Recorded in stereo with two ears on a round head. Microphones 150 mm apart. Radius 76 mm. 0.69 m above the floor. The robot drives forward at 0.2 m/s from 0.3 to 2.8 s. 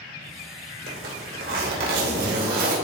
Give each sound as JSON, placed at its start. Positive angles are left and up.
{"t": 0.9, "sound": "a zipper", "side_deg": -65, "distance_m": 3.0}